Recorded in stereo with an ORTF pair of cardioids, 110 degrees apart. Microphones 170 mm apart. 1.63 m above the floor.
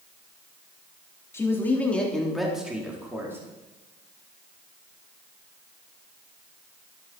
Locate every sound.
1.3 s a man speaking: 15° left, 4 m; by 3.4 s 15° right, 4.5 m